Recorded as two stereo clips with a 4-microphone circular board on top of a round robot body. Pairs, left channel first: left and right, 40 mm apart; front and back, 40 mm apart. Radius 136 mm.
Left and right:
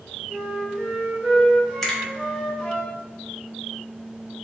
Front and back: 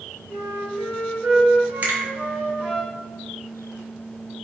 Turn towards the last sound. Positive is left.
turn(degrees=170)